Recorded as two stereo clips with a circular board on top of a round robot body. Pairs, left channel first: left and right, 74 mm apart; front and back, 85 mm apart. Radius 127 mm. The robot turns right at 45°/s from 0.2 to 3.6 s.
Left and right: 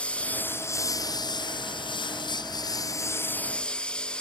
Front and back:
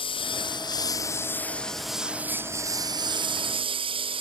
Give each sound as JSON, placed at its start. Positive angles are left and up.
{"t": 0.0, "sound": "a lawn mower", "azimuth_deg": 15}